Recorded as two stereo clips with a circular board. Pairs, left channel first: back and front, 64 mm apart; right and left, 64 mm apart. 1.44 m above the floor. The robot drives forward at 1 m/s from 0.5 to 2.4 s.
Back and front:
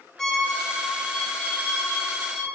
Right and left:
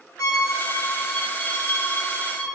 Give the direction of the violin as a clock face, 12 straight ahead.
3 o'clock.